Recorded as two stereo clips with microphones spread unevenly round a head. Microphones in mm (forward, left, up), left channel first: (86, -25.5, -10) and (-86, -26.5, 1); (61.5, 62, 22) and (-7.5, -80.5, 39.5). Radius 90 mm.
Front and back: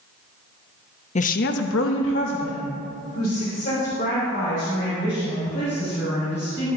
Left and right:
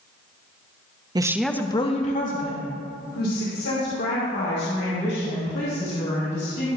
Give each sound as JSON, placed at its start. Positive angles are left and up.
{"t": 1.1, "sound": "a woman speaking", "azimuth_deg": -50, "distance_m": 0.9}